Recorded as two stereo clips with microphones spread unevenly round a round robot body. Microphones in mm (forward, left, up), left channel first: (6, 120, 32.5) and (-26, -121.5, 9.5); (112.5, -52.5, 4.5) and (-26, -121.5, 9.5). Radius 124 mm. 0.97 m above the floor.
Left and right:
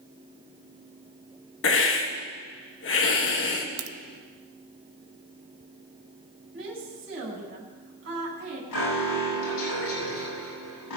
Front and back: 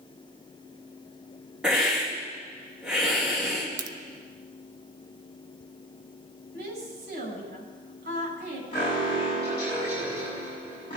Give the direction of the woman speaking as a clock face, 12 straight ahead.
5 o'clock.